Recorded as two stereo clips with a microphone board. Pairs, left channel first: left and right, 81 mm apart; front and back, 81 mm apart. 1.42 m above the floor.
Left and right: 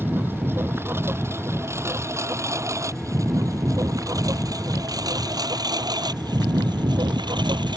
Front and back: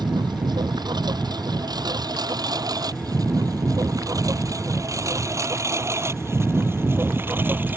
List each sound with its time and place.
0.0 s a lawn mower: 155° right; by 7.8 s 115° right